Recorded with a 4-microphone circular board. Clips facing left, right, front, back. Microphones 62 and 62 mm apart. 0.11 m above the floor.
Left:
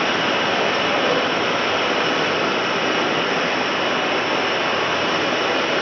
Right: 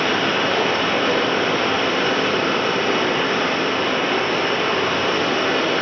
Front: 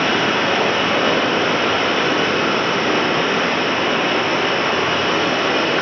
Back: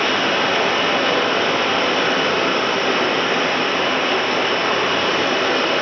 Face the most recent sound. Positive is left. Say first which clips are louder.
# even, front 1 dB
turn(degrees=30)